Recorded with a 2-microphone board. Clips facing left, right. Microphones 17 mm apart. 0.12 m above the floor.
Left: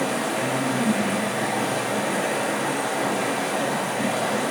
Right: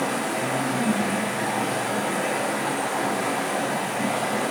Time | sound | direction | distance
0.0 | running water | 70° left (ahead or behind) | 1.1 m